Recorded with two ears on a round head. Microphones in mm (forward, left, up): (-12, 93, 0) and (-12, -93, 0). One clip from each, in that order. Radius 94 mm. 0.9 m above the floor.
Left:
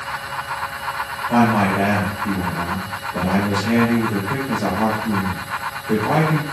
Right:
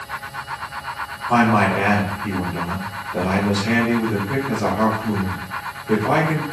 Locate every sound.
1.3 s a man speaking: 65° right (ahead or behind), 2.5 m